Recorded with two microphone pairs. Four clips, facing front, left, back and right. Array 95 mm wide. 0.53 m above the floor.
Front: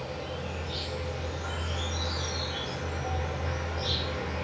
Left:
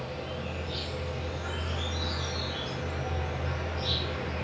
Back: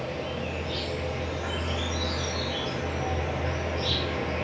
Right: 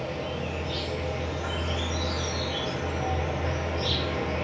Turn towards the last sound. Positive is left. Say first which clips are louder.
# right 5 dB, back 4 dB
turn(degrees=-140)